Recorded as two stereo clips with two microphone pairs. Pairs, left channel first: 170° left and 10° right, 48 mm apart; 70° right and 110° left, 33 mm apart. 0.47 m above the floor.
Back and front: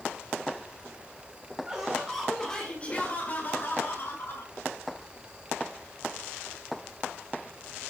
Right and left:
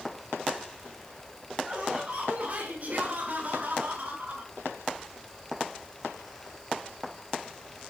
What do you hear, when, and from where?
1.7 s laughter: 60° left, 1.7 m; by 4.5 s 150° left, 3 m